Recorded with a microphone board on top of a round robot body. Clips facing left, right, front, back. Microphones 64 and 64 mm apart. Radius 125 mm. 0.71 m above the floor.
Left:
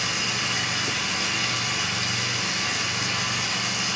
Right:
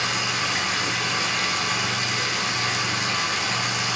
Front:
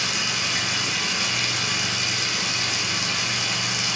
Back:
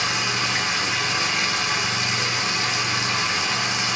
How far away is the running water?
About 1.4 m.